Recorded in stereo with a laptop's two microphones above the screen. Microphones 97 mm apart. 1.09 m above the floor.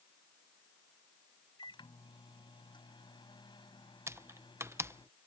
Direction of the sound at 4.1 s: 25° right (ahead or behind).